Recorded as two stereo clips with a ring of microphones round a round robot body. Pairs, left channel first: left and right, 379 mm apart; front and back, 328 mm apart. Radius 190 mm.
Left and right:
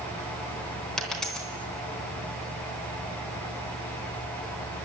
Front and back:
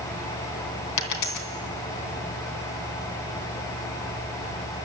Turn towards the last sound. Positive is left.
turn(degrees=0)